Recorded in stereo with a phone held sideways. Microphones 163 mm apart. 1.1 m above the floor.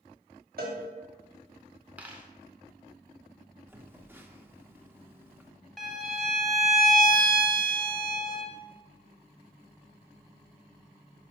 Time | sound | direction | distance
0.6 | a cowbell | 70° right (ahead or behind) | 1.6 m
2.0 | a dropped coin | 10° right (ahead or behind) | 0.9 m
3.7 | a phone buzzing | 15° right (ahead or behind) | 0.7 m
5.8 | a violin | centre (ahead or behind) | 0.8 m